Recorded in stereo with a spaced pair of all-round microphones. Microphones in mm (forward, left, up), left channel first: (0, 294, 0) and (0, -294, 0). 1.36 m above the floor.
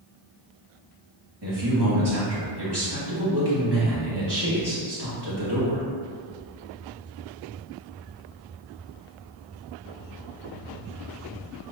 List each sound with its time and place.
1.4 s a man speaking: 40° right (ahead or behind), 1.9 m